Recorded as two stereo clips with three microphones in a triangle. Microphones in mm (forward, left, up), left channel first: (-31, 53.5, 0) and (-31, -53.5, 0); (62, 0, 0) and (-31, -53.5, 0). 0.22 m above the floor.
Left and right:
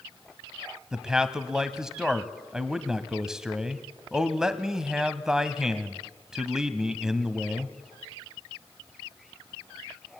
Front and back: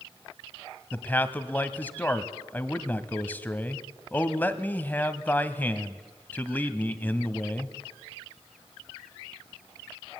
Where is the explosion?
No explosion in this recording.